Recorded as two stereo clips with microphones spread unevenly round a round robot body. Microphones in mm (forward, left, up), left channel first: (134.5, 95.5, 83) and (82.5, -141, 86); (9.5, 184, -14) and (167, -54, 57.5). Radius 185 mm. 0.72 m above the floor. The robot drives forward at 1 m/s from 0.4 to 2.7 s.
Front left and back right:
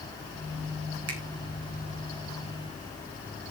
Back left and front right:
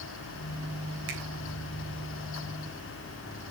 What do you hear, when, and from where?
1.1 s a finger snap: 90° right, 3.5 m